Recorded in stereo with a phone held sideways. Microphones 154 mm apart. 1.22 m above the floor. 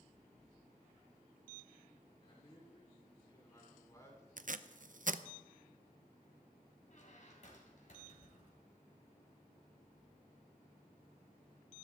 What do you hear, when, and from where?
2.2 s a man speaking: 35° left (ahead or behind), 4 m; by 4.3 s 20° left (ahead or behind), 4 m
4.4 s tape being pulled: 60° right (ahead or behind), 0.5 m
6.9 s a squeak: 55° left (ahead or behind), 3 m